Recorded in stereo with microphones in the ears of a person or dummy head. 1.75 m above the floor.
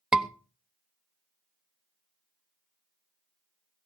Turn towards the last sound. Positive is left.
turn(degrees=-5)  # may be behind; listen again after turning